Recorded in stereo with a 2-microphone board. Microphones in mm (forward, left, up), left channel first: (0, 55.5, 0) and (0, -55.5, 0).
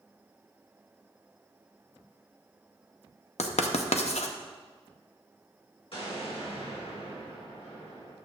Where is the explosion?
60° left (ahead or behind), 3.5 m.